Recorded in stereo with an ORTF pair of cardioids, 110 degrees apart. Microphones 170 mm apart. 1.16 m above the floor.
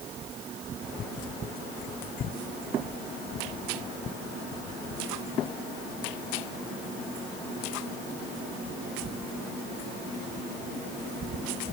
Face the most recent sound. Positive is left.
No sound to turn to.